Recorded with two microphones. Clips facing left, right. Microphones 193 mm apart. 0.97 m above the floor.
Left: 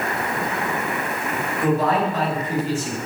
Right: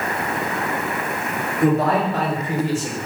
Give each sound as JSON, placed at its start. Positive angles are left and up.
{"t": 1.6, "sound": "a man speaking", "side_deg": -55, "distance_m": 3.5}